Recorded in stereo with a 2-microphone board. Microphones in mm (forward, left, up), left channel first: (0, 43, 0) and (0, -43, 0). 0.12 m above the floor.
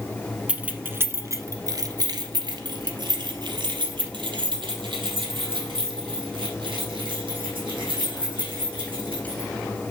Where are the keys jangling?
15° right (ahead or behind), 0.9 m; by 9.5 s 75° right (ahead or behind), 5 m.